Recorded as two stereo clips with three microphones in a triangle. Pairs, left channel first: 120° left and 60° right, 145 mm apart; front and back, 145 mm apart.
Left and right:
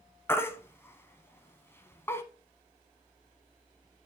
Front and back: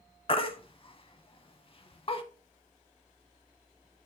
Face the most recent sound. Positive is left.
turn(degrees=50)